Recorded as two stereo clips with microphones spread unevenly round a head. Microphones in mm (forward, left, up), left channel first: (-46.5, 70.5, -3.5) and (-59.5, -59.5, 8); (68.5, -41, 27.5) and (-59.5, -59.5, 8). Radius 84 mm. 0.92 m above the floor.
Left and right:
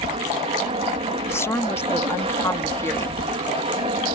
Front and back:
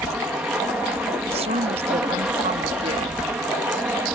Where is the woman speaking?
150° left.